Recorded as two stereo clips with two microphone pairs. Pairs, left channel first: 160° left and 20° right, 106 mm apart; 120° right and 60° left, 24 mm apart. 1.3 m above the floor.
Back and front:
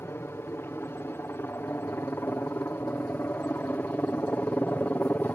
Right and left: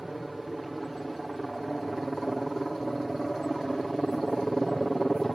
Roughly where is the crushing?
I don't hear crushing.